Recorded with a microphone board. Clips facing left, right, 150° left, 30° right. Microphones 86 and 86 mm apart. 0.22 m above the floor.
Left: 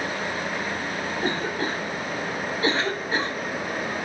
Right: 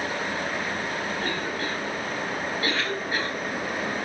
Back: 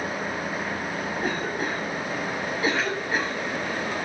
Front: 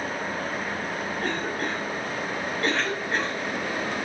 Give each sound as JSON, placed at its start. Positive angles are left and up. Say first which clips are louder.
{"t": 1.2, "sound": "a cough", "louder": "left 3 dB, back 1 dB", "azimuth_deg": 75, "distance_m": 1.0}